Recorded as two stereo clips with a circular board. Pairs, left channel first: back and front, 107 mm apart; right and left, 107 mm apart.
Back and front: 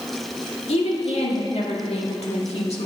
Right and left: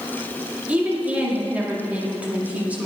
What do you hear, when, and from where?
0.7 s a woman speaking: 165° left, 2.0 m